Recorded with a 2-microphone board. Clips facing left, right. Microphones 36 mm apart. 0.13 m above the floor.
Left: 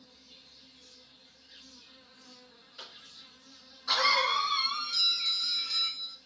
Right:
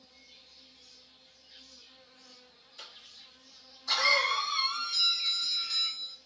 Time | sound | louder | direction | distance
0.0 | an insect | left 1 dB | 70° left (ahead or behind) | 2 m
2.8 | a cough | left 1 dB | 25° left (ahead or behind) | 1.8 m
4.9 | a doorbell | left 1 dB | centre (ahead or behind) | 1.5 m